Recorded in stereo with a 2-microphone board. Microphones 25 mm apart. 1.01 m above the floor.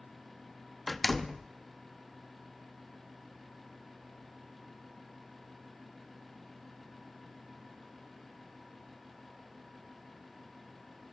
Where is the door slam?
Centre (ahead or behind), 0.8 m.